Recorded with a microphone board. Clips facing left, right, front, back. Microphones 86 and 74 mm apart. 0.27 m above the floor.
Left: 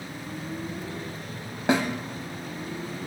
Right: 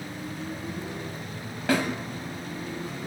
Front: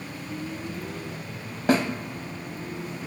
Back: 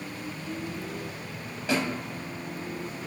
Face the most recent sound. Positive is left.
turn(degrees=25)